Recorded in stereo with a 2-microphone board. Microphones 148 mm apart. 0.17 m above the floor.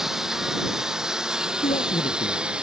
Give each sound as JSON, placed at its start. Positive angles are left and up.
{"t": 0.0, "sound": "a lawn mower", "side_deg": -5}
{"t": 1.6, "sound": "a man speaking", "side_deg": 55}